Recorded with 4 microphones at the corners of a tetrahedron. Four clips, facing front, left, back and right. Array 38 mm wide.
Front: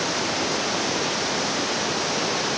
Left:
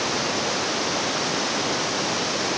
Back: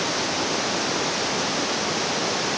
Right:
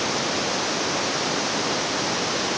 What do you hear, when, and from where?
Only background noise.